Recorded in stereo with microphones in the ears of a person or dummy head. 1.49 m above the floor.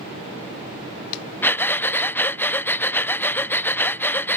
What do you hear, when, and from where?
1.4 s breathing: 10° left (ahead or behind)